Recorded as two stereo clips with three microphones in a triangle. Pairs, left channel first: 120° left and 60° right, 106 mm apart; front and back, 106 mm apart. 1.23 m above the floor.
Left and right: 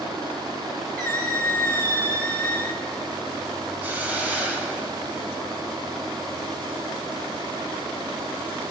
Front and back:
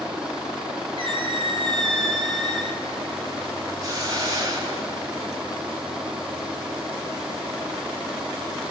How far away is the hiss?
About 1.7 m.